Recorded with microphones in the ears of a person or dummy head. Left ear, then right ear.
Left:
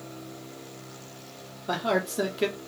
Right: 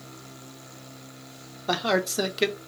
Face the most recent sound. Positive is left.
turn(degrees=-25)  # may be behind; listen again after turning